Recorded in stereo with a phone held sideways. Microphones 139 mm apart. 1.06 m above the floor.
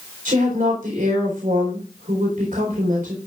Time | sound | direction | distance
0.2 | a woman speaking | 75° right (ahead or behind) | 4 m